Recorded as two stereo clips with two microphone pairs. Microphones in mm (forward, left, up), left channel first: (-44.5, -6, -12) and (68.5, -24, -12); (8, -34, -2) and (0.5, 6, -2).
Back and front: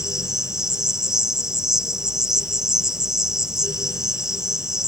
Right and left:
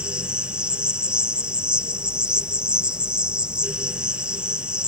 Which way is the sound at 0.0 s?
70° left.